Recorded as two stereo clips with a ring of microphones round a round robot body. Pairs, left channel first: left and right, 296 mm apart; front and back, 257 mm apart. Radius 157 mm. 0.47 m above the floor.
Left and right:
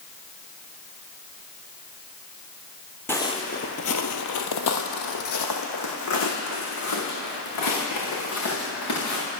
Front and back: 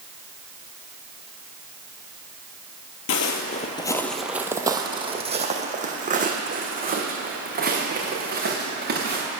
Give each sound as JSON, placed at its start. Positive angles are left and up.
{"t": 3.1, "sound": "footsteps", "azimuth_deg": 10, "distance_m": 0.6}